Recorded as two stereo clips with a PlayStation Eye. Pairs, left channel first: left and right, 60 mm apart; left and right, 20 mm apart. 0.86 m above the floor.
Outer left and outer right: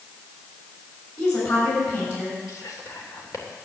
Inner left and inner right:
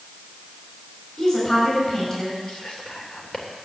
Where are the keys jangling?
No keys jangling in this recording.